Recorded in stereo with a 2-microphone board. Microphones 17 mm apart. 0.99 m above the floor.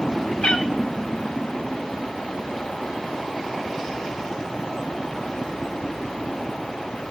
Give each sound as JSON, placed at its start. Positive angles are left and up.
{"t": 0.4, "sound": "a cat meowing", "side_deg": 65, "distance_m": 0.8}